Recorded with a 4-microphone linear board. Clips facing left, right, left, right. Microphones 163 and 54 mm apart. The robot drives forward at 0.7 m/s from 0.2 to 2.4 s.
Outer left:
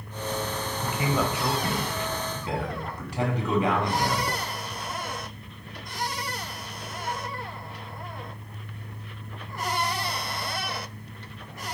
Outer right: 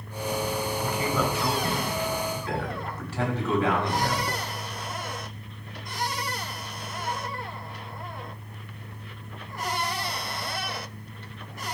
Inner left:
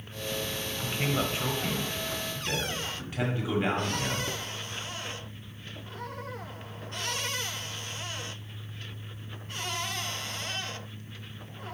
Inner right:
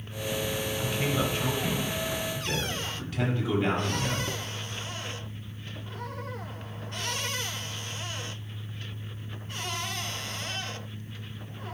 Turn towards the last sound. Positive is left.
turn(degrees=15)  # may be behind; listen again after turning